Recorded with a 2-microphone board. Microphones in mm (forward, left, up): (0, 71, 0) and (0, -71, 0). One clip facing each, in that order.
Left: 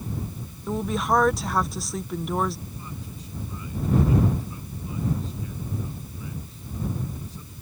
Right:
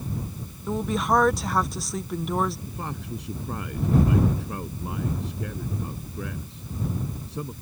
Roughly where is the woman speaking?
Centre.